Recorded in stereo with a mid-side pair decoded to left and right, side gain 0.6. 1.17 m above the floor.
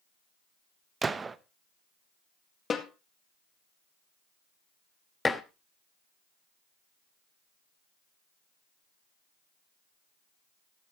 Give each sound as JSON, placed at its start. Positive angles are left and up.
{"t": 1.0, "sound": "a gunshot", "azimuth_deg": -25, "distance_m": 0.8}
{"t": 2.7, "sound": "a snare drum", "azimuth_deg": 30, "distance_m": 1.9}
{"t": 5.2, "sound": "dishes clattering", "azimuth_deg": 20, "distance_m": 1.0}